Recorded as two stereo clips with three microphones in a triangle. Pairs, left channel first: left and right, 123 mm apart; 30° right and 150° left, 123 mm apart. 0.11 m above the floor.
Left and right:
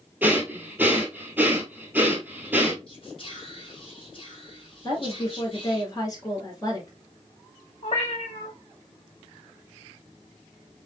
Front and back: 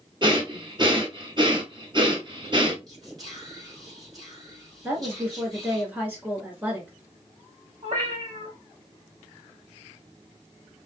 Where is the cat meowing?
115° left, 1.4 m.